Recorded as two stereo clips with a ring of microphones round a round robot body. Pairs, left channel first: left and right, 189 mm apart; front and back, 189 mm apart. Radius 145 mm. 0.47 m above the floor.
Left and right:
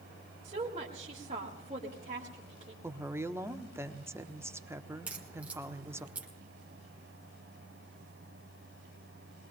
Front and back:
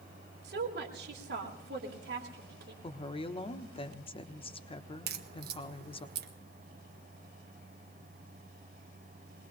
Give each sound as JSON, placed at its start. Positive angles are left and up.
{"t": 0.4, "sound": "a woman speaking", "azimuth_deg": -150, "distance_m": 2.0}
{"t": 2.8, "sound": "a woman speaking", "azimuth_deg": -25, "distance_m": 1.2}
{"t": 5.1, "sound": "a crack", "azimuth_deg": -170, "distance_m": 1.6}